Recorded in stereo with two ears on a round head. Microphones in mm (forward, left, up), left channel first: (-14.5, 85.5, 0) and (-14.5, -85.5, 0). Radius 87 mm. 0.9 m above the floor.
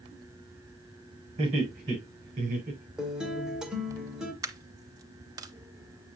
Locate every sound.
1.4 s laughter: 35° right (ahead or behind), 5 m; by 2.9 s 40° right (ahead or behind), 4.5 m
3.0 s a guitar: 5° right (ahead or behind), 1.8 m
4.4 s a dropped coin: 20° right (ahead or behind), 0.7 m